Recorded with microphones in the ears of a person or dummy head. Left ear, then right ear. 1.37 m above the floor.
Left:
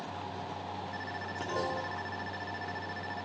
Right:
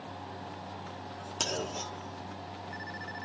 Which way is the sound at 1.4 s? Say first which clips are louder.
Right 2 dB; 80° right.